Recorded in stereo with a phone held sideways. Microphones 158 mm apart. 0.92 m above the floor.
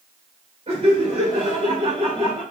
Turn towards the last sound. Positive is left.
turn(degrees=-40)  # may be behind; listen again after turning